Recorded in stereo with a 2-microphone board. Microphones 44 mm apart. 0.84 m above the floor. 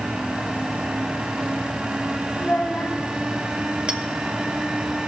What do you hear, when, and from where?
2.4 s a child speaking: 55° left (ahead or behind), 3 m
3.9 s a clink: 25° right (ahead or behind), 1.7 m